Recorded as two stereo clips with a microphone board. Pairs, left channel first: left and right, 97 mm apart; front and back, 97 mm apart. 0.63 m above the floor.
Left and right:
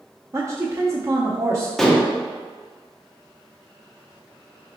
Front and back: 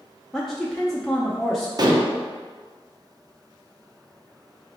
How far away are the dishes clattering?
About 0.6 m.